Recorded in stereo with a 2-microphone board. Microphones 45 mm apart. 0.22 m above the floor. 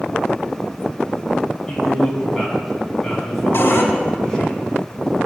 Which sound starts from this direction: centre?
A man speaking, at 1.7 s.